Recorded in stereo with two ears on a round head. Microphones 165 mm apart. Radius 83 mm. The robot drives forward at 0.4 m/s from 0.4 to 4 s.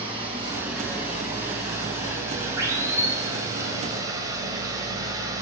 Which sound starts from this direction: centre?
Running water, at 0.0 s.